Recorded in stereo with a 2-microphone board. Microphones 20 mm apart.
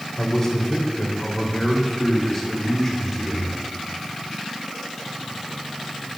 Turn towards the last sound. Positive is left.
turn(degrees=0)  # may be behind; listen again after turning